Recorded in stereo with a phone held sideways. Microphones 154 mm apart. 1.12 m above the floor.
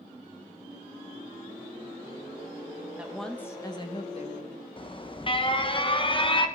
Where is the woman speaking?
10° right (ahead or behind), 1.5 m; by 4.6 s 55° left (ahead or behind), 2 m.